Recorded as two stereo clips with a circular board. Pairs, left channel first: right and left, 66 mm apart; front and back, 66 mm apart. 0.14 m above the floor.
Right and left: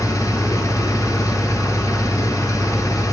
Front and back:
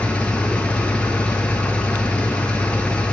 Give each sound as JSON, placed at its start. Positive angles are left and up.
{"t": 0.0, "sound": "an engine running", "azimuth_deg": -70, "distance_m": 0.8}